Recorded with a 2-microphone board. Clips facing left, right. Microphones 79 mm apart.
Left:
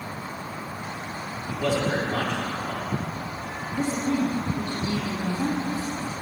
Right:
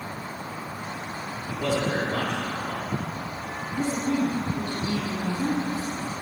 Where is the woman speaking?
50° left (ahead or behind), 2.5 m.